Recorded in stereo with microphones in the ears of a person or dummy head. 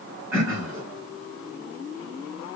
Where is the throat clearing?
20° right (ahead or behind), 1.8 m.